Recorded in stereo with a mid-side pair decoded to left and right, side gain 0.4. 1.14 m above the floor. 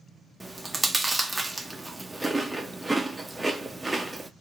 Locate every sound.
0.4 s chewing: 15° right, 0.6 m